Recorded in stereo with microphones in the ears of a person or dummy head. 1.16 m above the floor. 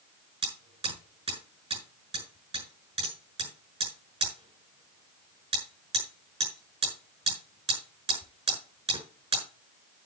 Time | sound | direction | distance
0.4 | hammering | 30° right (ahead or behind) | 7.5 m